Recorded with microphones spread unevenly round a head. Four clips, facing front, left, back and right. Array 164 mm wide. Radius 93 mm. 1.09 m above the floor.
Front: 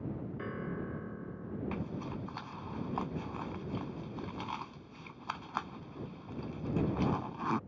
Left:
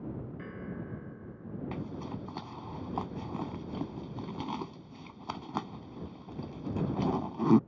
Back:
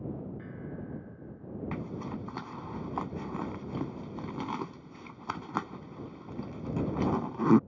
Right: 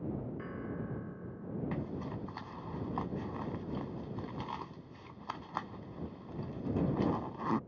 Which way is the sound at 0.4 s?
5° left.